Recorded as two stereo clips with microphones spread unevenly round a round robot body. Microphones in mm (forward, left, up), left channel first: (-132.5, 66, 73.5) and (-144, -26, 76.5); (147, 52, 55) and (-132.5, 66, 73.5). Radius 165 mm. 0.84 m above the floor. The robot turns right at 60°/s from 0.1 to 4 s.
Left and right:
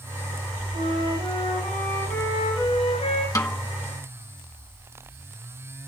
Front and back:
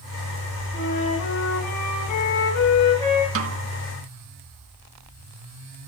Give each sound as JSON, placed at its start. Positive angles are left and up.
{"t": 0.7, "sound": "a flute", "azimuth_deg": -70, "distance_m": 6.0}
{"t": 3.4, "sound": "a snare drum", "azimuth_deg": 135, "distance_m": 1.3}